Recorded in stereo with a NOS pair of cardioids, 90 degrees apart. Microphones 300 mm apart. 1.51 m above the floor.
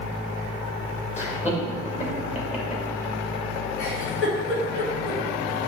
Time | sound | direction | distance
1.2 | laughter | 20° left | 2.5 m
3.8 | a giggle | 50° left | 2 m